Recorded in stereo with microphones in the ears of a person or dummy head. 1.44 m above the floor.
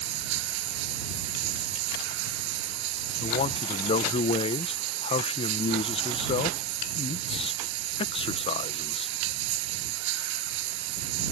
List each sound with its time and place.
0.0 s running water: 80° right
3.2 s a man speaking: 30° left (ahead or behind)